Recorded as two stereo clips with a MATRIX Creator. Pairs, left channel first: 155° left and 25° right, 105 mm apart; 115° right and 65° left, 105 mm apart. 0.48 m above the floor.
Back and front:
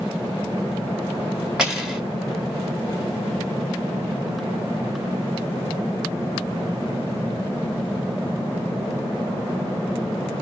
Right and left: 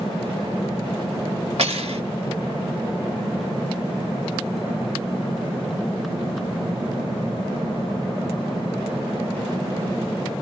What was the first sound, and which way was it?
Cutlery clinking, 60° left.